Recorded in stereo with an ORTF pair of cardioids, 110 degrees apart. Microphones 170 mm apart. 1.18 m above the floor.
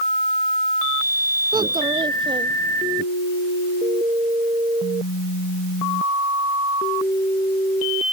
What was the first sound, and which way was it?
A child speaking, 25° right.